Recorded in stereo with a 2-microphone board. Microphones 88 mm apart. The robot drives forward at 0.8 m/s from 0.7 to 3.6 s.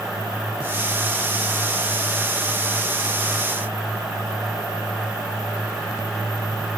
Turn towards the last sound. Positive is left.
No sound to turn to.